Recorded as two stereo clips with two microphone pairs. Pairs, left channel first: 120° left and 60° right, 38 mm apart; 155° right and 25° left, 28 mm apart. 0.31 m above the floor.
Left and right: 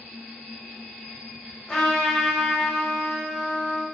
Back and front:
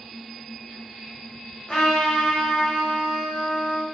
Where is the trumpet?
170° right, 1.0 m.